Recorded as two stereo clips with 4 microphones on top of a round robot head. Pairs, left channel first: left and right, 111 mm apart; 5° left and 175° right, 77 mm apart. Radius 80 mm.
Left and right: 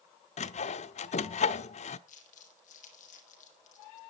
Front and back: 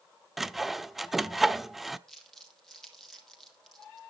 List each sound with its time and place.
0.4 s sawing: 95° left, 0.8 m
2.1 s crumpling: 90° left, 4 m